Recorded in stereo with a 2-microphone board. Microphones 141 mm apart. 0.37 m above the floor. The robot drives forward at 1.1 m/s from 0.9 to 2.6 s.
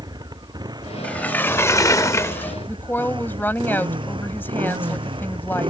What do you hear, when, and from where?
0.0 s a motorcycle: 30° right (ahead or behind); by 5.7 s 35° right (ahead or behind)
1.0 s a sliding door: 10° left (ahead or behind); by 2.5 s 15° left (ahead or behind)
2.7 s a woman speaking: 15° left (ahead or behind)